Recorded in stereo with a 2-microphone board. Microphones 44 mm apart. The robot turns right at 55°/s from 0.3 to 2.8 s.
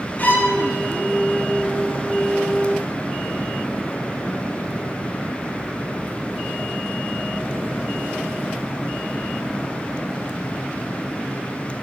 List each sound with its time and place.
0.2 s a violin: 40° left (ahead or behind), 1.8 m; by 0.6 s 50° left (ahead or behind), 1.8 m